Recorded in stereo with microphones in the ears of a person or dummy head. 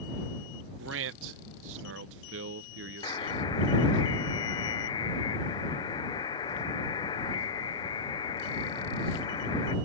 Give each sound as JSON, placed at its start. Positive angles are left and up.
{"t": 0.8, "sound": "a man speaking", "side_deg": -60}
{"t": 3.0, "sound": "a buzzer", "side_deg": 20}